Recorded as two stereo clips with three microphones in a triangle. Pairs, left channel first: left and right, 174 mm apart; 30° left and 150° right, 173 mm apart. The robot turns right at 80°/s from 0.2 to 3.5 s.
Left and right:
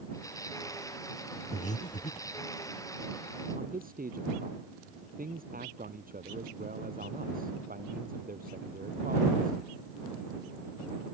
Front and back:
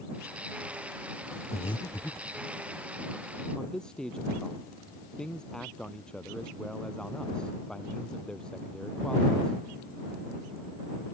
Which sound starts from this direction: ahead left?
Breathing, at 1.5 s.